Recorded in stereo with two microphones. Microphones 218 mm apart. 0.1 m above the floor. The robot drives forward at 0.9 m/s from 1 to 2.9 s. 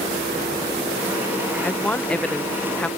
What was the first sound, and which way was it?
A woman speaking, 5° left (ahead or behind).